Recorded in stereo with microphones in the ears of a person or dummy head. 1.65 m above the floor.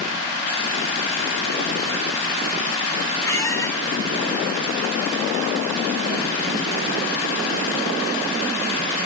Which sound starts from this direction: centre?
A squeak, at 3.2 s.